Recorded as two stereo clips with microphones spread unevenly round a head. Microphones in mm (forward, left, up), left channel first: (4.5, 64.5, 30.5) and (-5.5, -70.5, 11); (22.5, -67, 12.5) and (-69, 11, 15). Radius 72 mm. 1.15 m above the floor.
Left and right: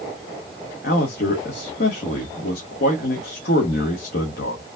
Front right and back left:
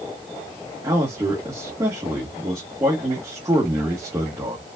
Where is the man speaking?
70° left, 1.4 m.